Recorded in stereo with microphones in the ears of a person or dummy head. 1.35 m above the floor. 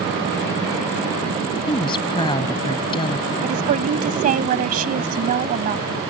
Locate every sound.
1.7 s a woman speaking: 25° left (ahead or behind)
3.4 s a woman speaking: 45° right (ahead or behind)